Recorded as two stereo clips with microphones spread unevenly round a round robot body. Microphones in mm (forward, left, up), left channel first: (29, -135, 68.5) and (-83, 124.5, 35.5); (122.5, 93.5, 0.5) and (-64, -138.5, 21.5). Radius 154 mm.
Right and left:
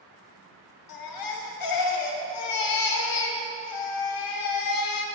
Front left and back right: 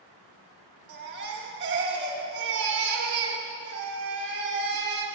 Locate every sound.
0.9 s a baby crying: 75° right, 1.4 m